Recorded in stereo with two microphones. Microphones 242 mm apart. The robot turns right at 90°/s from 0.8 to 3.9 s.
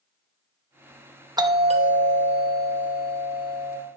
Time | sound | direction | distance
1.4 | a doorbell | 15° right (ahead or behind) | 0.7 m